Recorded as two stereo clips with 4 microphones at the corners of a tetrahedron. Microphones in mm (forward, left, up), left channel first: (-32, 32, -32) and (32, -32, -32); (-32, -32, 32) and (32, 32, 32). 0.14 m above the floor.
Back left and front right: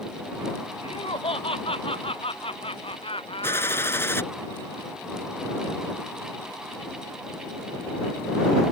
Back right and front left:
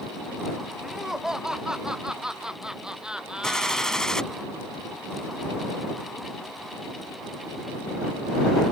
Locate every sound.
0.8 s laughter: 130° left; by 4.1 s 125° left
3.4 s a gunshot: 150° left